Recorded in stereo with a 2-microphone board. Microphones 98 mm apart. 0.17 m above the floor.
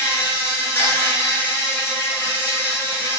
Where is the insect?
25° left (ahead or behind), 0.9 m.